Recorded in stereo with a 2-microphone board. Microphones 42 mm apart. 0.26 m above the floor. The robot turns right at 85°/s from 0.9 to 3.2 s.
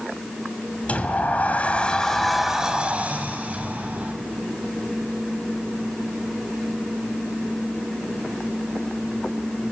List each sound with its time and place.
0.9 s a sliding door: 60° left, 1.7 m; by 4.1 s 105° right, 1.7 m